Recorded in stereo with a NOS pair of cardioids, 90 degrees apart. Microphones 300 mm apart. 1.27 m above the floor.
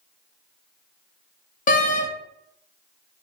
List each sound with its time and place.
1.7 s a door slam: 30° left, 0.5 m